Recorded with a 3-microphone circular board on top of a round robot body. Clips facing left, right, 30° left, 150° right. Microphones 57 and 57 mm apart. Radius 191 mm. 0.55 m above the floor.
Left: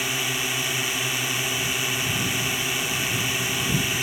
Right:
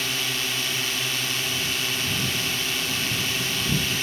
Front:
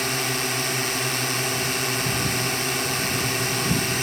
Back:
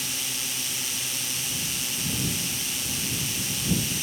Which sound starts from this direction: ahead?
A drone, at 0.0 s.